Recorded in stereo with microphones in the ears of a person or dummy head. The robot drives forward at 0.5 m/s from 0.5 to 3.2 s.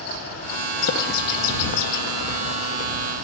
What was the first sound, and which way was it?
A bird, 60° left (ahead or behind).